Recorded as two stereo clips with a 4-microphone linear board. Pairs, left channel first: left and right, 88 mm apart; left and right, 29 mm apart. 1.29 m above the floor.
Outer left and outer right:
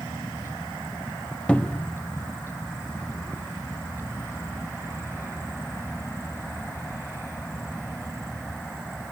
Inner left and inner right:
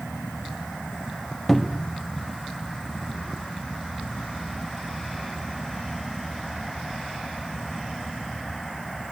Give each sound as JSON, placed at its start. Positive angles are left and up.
{"t": 1.5, "sound": "a cupboard door", "side_deg": 15, "distance_m": 1.2}